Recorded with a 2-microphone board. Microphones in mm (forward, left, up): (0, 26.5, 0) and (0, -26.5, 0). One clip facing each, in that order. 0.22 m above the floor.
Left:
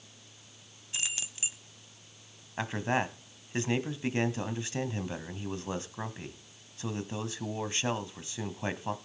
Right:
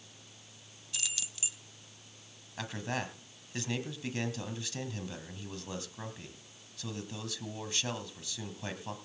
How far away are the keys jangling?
About 0.9 m.